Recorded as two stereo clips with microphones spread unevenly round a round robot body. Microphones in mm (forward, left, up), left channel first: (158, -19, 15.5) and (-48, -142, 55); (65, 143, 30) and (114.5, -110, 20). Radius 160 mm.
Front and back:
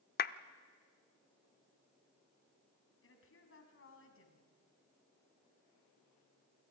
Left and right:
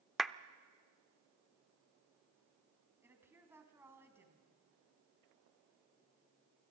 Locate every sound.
0.2 s a clap: 10° left, 0.7 m
3.0 s a woman speaking: straight ahead, 4 m